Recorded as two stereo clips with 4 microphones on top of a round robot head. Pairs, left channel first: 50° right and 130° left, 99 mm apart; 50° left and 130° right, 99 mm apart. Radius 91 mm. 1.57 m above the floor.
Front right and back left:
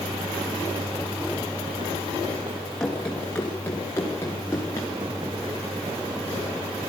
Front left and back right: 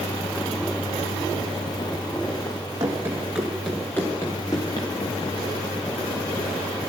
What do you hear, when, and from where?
2.8 s running footsteps: 135° right, 1.6 m; by 4.9 s 10° left, 1.8 m